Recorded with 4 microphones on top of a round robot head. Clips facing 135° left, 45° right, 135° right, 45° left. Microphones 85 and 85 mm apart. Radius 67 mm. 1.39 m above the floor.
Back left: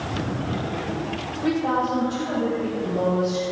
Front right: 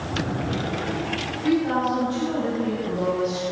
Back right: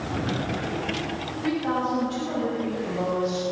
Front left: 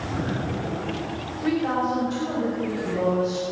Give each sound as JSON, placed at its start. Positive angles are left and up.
{"t": 1.4, "sound": "a woman speaking", "azimuth_deg": 110, "distance_m": 6.0}